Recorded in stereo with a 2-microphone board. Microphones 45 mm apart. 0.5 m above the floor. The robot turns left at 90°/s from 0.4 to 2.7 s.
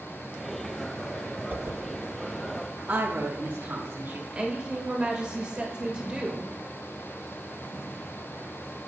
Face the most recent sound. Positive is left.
turn(degrees=-20)  # may be behind; listen again after turning